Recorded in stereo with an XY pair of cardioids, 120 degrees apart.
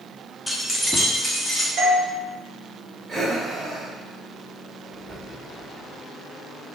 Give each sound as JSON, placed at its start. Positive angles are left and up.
{"t": 0.5, "sound": "keys jangling", "azimuth_deg": 10, "distance_m": 0.6}
{"t": 1.8, "sound": "a doorbell", "azimuth_deg": -40, "distance_m": 1.5}
{"t": 3.1, "sound": "breathing", "azimuth_deg": -25, "distance_m": 1.4}